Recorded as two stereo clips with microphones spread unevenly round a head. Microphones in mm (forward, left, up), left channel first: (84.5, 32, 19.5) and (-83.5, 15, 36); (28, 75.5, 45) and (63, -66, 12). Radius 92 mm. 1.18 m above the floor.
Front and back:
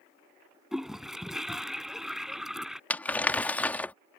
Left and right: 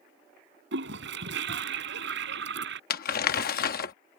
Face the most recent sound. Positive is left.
turn(degrees=90)